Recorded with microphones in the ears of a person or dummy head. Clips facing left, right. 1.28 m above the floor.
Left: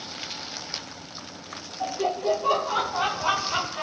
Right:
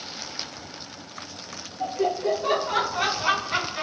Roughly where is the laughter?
Centre.